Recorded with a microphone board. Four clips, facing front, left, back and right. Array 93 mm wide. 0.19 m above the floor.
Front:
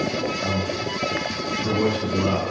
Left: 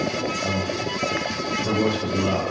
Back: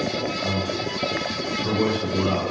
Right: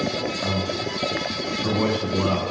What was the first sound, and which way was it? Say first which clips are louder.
A man speaking: left 1 dB, front 1 dB; 85° right.